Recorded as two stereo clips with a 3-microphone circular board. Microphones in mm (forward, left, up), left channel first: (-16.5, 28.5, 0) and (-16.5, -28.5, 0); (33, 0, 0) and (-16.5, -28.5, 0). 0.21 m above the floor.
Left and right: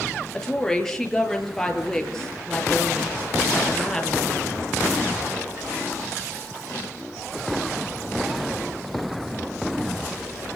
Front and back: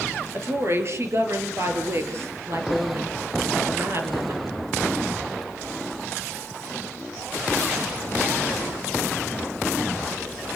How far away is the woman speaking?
About 5 m.